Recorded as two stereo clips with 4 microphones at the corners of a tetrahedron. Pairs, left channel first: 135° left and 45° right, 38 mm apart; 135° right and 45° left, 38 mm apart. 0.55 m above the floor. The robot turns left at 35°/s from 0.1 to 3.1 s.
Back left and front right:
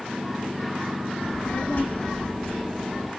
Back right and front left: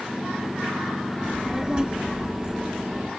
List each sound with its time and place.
1.2 s a child speaking: 120° left, 1.0 m; by 3.1 s 55° left, 1.0 m